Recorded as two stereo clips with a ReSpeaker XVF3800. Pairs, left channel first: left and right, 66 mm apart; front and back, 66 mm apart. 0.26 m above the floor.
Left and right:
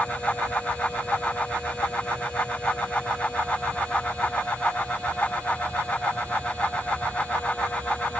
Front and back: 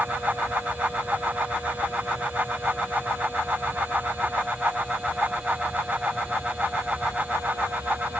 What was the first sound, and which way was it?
Only background noise.